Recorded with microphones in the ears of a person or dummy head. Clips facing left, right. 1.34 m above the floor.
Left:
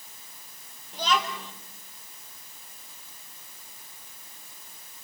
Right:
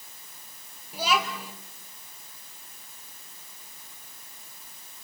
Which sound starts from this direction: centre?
A child speaking, at 0.9 s.